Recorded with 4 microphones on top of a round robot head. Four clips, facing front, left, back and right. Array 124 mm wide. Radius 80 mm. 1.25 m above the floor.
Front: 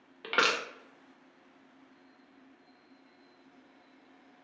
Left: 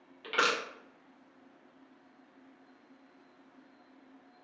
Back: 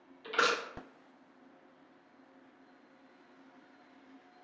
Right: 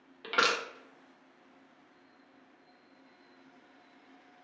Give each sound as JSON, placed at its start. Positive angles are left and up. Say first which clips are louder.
{"t": 0.2, "sound": "crushing", "louder": "right 1 dB, front 2 dB", "azimuth_deg": -20, "distance_m": 0.9}